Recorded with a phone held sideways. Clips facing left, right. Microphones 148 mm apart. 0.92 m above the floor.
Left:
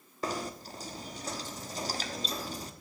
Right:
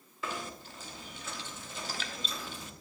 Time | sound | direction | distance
0.2 | knocking | 40° left (ahead or behind) | 0.8 m